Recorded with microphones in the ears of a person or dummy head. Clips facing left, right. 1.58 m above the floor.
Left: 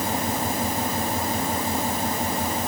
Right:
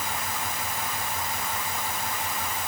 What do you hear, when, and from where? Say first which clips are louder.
0.0 s an engine running: left 8 dB; 35° left (ahead or behind)